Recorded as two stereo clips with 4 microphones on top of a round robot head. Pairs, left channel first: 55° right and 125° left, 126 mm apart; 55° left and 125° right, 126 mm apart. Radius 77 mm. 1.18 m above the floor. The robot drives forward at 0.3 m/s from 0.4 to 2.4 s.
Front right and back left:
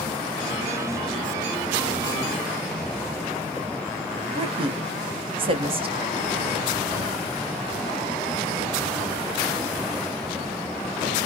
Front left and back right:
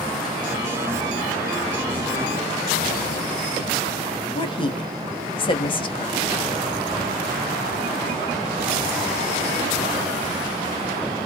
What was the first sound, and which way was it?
A woman speaking, 95° left.